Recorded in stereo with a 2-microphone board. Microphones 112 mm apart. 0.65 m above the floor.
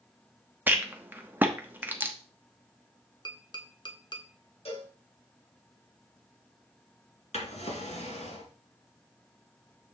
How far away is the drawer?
About 2 m.